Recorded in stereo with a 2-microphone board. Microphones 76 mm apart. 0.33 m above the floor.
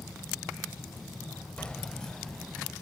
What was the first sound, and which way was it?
Keys jangling, 15° left (ahead or behind).